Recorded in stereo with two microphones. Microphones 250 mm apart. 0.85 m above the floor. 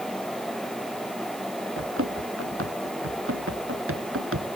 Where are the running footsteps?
60° right (ahead or behind).